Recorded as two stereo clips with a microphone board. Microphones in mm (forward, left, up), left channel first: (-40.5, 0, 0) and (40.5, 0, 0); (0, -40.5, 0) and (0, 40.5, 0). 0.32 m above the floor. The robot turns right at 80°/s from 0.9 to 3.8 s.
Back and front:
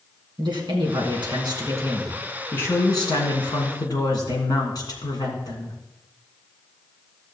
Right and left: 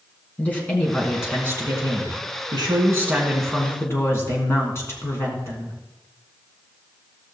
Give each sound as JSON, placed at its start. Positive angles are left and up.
{"t": 0.4, "sound": "a woman speaking", "azimuth_deg": -15, "distance_m": 3.5}